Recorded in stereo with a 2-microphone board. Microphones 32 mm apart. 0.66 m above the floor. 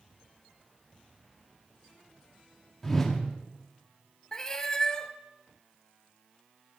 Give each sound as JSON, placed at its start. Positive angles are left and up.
{"t": 2.8, "sound": "a whoosh", "side_deg": 10, "distance_m": 1.4}
{"t": 4.3, "sound": "a cat meowing", "side_deg": 20, "distance_m": 0.8}